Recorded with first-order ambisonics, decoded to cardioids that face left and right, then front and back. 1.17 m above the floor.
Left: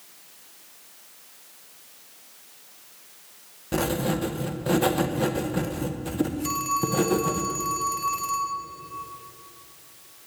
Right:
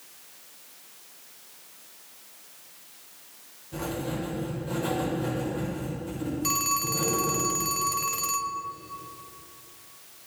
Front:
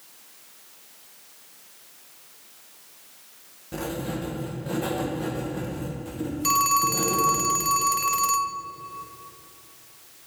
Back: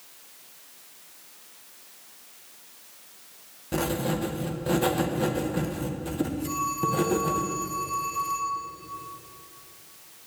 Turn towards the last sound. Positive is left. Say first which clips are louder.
# right 1 dB, front 9 dB
turn(degrees=-15)